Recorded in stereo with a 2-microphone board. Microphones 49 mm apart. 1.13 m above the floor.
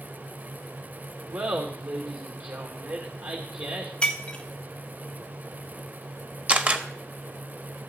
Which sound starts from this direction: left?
Breaking glass, at 4.0 s.